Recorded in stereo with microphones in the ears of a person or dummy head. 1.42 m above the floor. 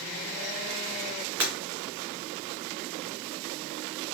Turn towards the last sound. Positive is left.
turn(degrees=-10)  # may be behind; listen again after turning